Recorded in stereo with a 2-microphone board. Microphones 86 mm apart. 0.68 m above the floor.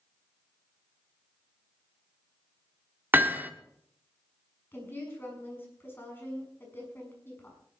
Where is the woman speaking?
25° left (ahead or behind), 6.5 m.